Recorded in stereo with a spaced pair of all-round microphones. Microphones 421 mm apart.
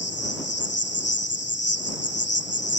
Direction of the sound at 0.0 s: 25° left (ahead or behind).